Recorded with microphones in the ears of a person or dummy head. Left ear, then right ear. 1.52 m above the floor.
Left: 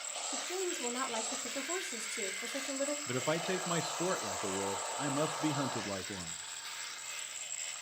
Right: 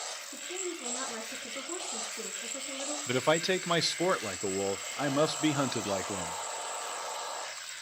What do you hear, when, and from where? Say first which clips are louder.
0.3 s a woman speaking: left 4 dB; 40° left (ahead or behind), 4 m
3.1 s a man speaking: right 11 dB; 35° right (ahead or behind), 0.6 m